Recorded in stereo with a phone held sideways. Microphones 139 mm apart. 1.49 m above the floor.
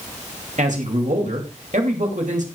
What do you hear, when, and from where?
0.6 s a man speaking: 65° right (ahead or behind), 3 m